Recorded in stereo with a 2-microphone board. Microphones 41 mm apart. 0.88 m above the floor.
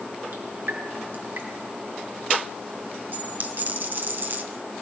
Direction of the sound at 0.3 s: 55° right (ahead or behind).